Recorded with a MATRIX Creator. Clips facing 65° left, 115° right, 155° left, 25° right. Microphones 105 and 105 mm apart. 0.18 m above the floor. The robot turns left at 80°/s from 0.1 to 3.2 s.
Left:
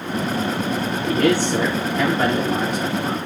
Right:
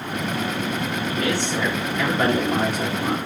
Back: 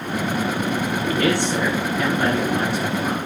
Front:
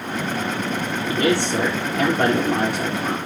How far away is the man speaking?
About 4.5 m.